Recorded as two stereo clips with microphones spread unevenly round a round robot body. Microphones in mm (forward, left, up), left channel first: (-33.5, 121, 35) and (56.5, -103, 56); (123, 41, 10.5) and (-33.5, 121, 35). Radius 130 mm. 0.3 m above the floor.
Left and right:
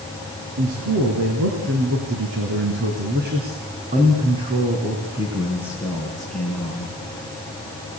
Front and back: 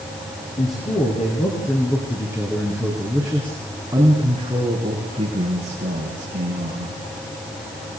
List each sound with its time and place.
0.6 s a man speaking: 90° right, 5 m; by 6.9 s 170° right, 4.5 m